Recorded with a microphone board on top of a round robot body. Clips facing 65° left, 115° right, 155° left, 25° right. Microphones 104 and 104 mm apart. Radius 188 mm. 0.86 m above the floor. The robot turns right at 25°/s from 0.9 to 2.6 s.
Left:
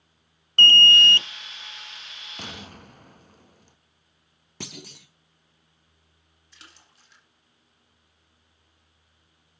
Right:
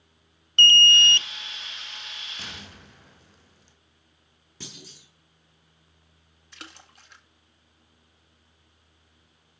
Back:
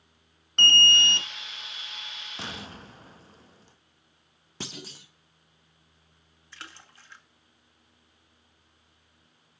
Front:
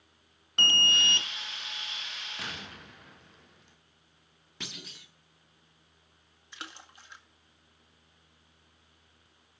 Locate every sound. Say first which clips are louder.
0.6 s an alarm: left 2 dB, back 5 dB; 60° left, 0.7 m; by 1.3 s 70° left, 0.7 m
2.4 s an explosion: left 8 dB, back 5 dB; 100° left, 1.8 m; by 3.8 s 105° left, 1.8 m
4.6 s a clunk: left 5 dB, back 5 dB; 100° left, 0.7 m
6.5 s a splash: right 8 dB, front 1 dB; 95° right, 2 m